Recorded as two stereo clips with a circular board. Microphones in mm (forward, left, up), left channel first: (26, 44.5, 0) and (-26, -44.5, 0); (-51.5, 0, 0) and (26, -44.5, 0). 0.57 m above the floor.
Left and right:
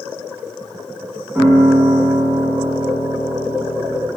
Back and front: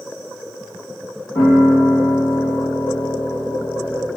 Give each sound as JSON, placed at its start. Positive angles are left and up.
{"t": 1.4, "sound": "a piano", "azimuth_deg": 155, "distance_m": 1.2}